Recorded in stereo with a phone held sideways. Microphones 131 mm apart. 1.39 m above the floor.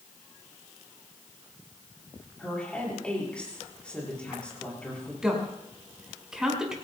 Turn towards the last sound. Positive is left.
turn(degrees=-5)  # may be behind; listen again after turning